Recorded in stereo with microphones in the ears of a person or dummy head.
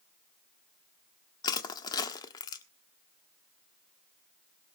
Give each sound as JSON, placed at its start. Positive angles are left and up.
{"t": 1.4, "sound": "crushing", "side_deg": 25, "distance_m": 1.3}